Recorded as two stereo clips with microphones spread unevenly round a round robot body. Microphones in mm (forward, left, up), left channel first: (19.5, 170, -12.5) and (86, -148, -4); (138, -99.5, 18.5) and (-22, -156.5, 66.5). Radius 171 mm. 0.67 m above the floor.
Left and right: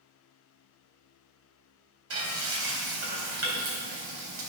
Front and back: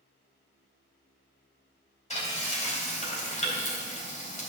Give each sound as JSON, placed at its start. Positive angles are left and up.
{"t": 2.1, "sound": "frying", "azimuth_deg": -30, "distance_m": 3.5}